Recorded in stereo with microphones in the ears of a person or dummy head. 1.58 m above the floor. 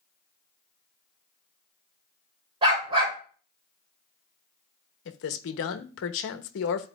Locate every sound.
2.6 s a dog barking: 25° right (ahead or behind), 3 m
5.0 s a man speaking: 60° left (ahead or behind), 0.9 m